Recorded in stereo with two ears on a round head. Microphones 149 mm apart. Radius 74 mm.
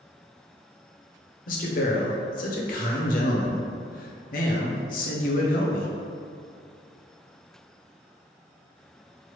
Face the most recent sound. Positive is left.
turn(degrees=55)  # may be behind; listen again after turning